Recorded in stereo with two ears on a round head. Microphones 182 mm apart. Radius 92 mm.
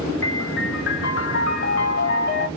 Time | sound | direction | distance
0.2 | a piano | 60° left (ahead or behind) | 0.8 m